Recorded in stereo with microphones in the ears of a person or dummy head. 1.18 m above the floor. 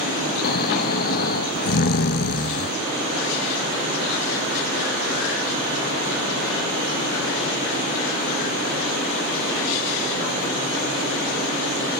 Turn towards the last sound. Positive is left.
turn(degrees=50)  # may be behind; listen again after turning